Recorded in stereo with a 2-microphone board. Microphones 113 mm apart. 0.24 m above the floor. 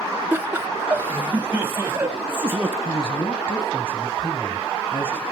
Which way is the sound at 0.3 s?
15° right (ahead or behind).